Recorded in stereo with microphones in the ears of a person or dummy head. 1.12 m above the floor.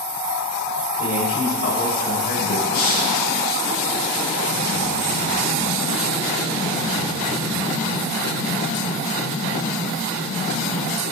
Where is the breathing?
55° left (ahead or behind), 5 m.